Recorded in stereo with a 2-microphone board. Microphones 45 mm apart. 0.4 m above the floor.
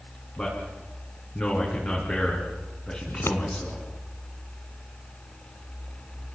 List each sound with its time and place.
0.4 s a man speaking: 30° left (ahead or behind), 5.5 m
3.1 s scissors: 65° left (ahead or behind), 1.2 m